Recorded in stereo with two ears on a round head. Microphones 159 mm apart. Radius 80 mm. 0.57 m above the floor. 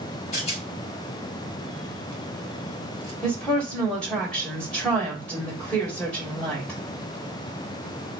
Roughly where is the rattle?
Left.